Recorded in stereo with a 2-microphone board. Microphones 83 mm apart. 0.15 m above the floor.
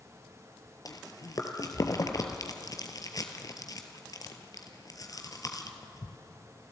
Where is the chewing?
45° left (ahead or behind), 2.0 m.